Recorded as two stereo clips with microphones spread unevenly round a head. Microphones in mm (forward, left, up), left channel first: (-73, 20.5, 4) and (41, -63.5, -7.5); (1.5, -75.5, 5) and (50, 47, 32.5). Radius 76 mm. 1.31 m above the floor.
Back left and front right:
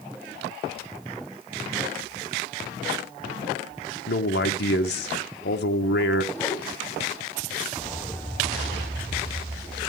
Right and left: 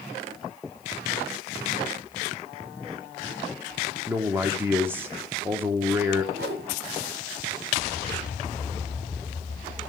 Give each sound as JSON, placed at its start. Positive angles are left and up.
{"t": 4.1, "sound": "a man speaking", "azimuth_deg": 145, "distance_m": 1.2}
{"t": 6.3, "sound": "a whoosh", "azimuth_deg": 65, "distance_m": 2.0}